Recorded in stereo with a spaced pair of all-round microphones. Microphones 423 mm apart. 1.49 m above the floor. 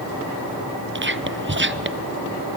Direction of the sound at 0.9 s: 30° right (ahead or behind).